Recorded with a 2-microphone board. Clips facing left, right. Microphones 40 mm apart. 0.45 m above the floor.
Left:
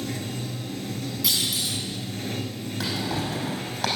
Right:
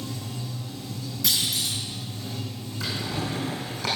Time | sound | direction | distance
0.0 | running water | 65° left (ahead or behind) | 1.0 m
1.2 | a clunk | 5° left (ahead or behind) | 2.5 m
2.8 | a drawer | 70° left (ahead or behind) | 4.5 m